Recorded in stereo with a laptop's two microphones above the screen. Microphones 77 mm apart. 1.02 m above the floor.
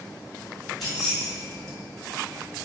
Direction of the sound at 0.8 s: Centre (ahead or behind).